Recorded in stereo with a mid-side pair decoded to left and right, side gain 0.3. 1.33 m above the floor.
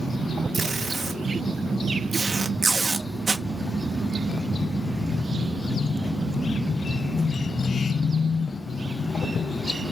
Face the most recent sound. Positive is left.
turn(degrees=-55)